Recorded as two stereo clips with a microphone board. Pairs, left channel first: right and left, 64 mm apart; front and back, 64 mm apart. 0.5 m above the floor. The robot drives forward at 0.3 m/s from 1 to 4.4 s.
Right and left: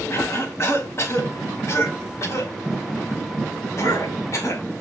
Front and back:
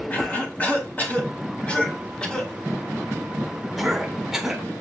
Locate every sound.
0.1 s a cough: 55° right, 1.8 m; by 4.6 s 100° right, 1.6 m